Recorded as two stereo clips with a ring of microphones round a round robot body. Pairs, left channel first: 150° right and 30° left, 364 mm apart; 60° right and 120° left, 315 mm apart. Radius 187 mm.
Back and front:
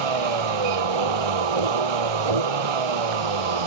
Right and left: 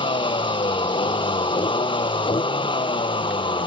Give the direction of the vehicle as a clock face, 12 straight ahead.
12 o'clock.